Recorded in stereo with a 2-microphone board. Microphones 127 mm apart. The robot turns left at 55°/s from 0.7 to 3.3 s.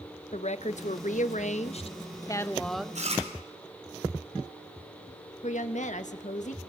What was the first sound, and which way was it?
A woman speaking, 115° left.